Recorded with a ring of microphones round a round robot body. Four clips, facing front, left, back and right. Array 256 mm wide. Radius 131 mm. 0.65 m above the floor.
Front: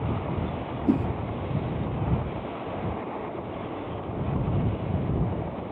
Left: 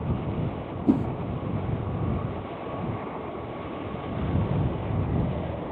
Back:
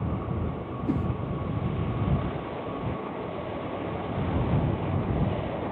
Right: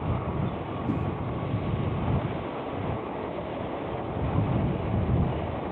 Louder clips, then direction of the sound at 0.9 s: Left 9 dB, front 5 dB; 55° left.